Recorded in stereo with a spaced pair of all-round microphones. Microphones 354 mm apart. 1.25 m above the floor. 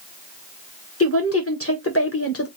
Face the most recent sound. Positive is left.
turn(degrees=40)  # may be behind; listen again after turning